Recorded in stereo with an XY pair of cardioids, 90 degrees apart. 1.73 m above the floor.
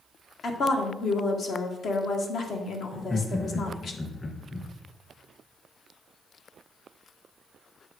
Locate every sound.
0.4 s a woman speaking: 65° left, 1.8 m
2.9 s laughter: 30° left, 2.5 m